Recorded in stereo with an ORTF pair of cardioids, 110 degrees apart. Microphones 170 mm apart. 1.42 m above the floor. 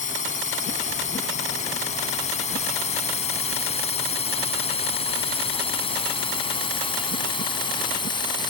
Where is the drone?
45° left; by 8.5 s 25° left.